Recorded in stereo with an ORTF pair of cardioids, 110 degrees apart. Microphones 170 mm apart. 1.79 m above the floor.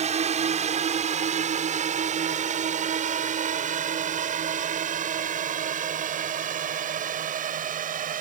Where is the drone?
40° right; by 8.2 s 50° right.